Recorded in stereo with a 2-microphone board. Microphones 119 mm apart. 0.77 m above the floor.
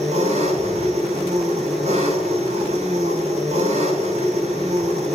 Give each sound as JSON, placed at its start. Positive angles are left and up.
{"t": 0.0, "sound": "an engine running", "side_deg": -70, "distance_m": 7.0}